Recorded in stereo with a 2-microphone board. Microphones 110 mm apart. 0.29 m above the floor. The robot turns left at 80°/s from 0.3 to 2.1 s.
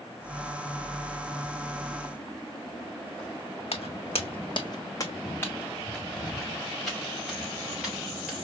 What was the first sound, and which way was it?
Footsteps, 70° left (ahead or behind).